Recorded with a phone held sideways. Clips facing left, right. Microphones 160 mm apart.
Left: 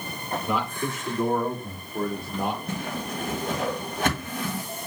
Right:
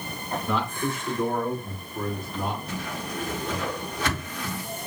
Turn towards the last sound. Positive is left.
turn(degrees=50)  # may be behind; listen again after turning